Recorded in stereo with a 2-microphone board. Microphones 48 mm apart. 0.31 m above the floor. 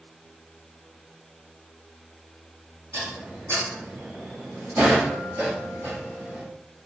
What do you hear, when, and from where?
2.9 s dishes clattering: 60° right (ahead or behind), 2 m